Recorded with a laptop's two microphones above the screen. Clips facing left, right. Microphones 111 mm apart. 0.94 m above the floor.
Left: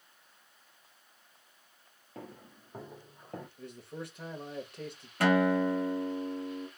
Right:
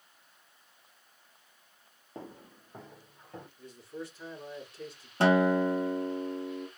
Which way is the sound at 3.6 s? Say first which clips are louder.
Even; 60° left (ahead or behind).